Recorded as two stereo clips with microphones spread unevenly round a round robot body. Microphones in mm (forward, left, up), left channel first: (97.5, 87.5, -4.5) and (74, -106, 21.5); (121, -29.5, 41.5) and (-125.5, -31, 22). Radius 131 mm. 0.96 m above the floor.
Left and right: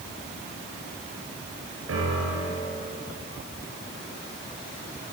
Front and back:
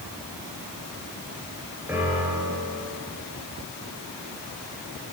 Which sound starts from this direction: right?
A piano, at 1.9 s.